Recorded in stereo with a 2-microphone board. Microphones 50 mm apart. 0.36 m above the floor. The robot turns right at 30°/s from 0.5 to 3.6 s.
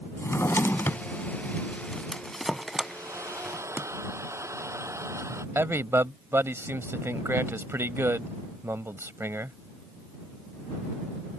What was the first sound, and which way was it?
A drawer, 60° left (ahead or behind).